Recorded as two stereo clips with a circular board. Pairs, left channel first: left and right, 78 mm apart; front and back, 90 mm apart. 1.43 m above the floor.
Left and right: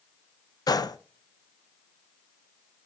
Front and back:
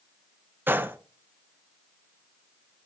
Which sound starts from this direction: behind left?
A gunshot, at 0.7 s.